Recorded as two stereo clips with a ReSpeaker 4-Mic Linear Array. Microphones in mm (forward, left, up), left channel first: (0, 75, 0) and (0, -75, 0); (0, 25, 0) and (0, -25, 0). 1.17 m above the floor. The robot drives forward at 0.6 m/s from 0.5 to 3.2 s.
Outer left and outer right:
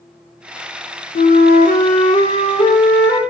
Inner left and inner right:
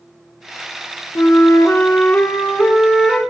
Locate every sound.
1.1 s a flute: 70° left (ahead or behind), 0.5 m; by 3.2 s 25° left (ahead or behind), 1.2 m